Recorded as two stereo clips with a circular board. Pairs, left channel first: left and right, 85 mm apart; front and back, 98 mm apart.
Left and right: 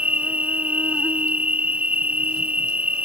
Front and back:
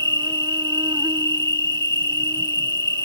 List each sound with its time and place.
0.0 s an insect: 160° right